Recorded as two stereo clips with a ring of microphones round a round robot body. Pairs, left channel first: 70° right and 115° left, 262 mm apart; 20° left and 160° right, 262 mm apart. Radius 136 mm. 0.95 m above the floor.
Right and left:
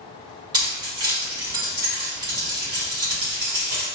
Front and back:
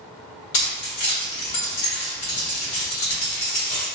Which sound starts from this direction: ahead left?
Keys jangling, at 0.5 s.